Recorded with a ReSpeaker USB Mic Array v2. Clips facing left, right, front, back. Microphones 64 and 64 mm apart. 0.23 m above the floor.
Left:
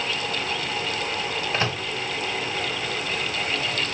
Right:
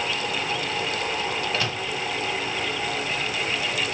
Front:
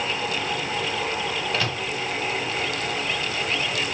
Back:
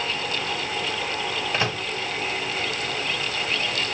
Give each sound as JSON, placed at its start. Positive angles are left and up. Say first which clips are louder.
{"t": 1.5, "sound": "a microwave", "louder": "left 1 dB, back 1 dB", "azimuth_deg": 125, "distance_m": 0.9}